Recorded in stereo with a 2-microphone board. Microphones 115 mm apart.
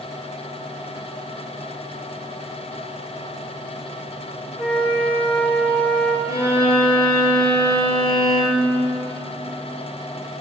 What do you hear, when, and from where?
4.6 s a flute: 10° left (ahead or behind), 3 m
6.3 s a violin: 55° left (ahead or behind), 4 m